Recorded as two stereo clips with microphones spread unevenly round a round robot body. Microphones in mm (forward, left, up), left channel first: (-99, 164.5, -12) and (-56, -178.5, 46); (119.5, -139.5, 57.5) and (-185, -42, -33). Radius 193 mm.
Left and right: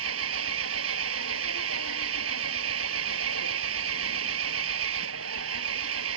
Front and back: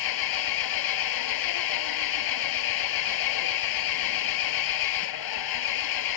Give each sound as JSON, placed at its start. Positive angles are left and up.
{"t": 0.0, "sound": "an engine running", "azimuth_deg": -25}